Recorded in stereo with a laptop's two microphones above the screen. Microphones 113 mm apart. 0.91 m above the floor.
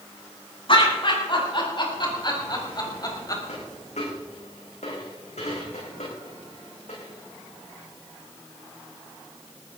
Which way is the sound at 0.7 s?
50° left (ahead or behind).